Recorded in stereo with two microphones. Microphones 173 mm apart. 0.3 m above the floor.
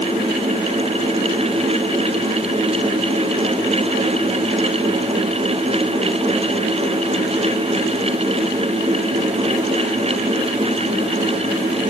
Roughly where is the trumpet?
No trumpet in this recording.